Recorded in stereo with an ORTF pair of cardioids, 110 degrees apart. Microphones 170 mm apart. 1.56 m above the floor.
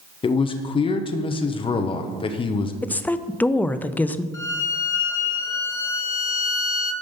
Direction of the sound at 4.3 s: 20° left.